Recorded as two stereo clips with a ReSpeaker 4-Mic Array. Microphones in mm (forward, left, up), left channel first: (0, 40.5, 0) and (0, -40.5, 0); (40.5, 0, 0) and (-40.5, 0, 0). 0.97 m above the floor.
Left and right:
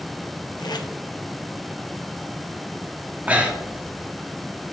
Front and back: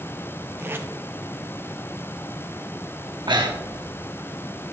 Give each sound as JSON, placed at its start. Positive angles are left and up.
{"t": 0.6, "sound": "tape being pulled", "azimuth_deg": 120, "distance_m": 0.7}
{"t": 3.3, "sound": "breathing", "azimuth_deg": -160, "distance_m": 1.0}